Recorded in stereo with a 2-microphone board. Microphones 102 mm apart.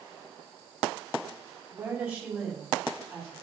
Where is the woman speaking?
15° right (ahead or behind), 4 m; by 3.3 s 5° left (ahead or behind), 4.5 m.